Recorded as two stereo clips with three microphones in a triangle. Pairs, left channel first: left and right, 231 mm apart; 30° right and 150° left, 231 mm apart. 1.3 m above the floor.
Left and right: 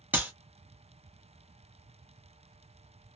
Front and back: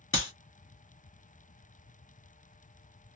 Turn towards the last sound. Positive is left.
turn(degrees=-5)